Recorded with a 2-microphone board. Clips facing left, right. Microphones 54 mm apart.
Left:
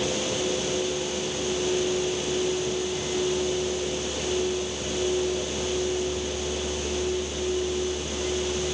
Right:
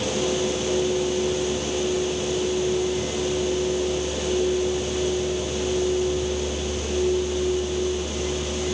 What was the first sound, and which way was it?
Only background noise.